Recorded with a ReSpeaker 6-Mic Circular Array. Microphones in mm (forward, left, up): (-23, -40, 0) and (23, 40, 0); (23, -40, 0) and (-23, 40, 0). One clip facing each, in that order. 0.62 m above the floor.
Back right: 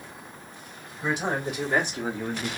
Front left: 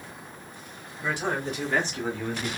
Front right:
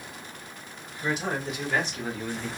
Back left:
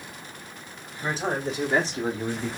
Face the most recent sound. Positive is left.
turn(degrees=170)